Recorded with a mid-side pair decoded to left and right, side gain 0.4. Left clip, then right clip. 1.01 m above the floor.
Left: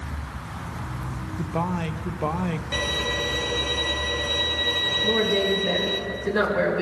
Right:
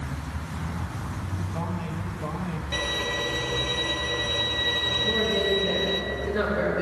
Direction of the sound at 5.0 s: 55° left.